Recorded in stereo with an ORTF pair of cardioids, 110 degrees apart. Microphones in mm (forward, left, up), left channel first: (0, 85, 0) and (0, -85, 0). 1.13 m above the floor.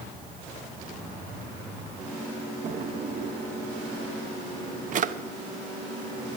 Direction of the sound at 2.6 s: 45° right.